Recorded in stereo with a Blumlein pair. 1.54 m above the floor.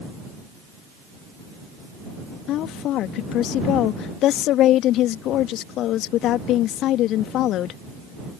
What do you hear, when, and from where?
2.5 s a woman speaking: 35° left